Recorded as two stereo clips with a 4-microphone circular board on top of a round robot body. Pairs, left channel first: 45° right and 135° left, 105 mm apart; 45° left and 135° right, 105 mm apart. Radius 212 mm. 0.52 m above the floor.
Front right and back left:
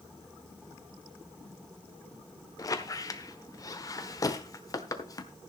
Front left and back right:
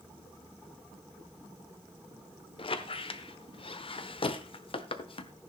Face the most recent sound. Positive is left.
turn(degrees=10)